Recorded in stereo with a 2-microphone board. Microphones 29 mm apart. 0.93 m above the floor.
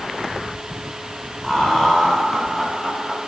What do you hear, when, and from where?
1.4 s laughter: 25° left (ahead or behind), 4 m; by 3.2 s 10° left (ahead or behind), 5.5 m